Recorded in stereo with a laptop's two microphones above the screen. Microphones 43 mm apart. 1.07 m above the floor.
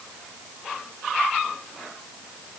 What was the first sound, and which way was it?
Only background noise.